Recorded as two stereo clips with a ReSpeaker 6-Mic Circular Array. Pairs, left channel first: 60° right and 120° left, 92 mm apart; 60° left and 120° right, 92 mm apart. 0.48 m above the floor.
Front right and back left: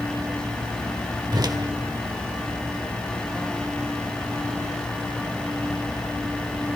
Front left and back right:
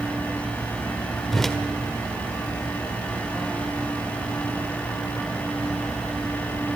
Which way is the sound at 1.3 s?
145° left.